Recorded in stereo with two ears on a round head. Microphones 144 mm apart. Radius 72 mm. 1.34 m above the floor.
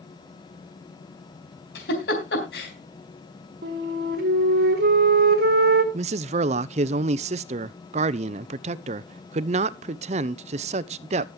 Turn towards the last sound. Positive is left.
turn(degrees=-40)  # may be behind; listen again after turning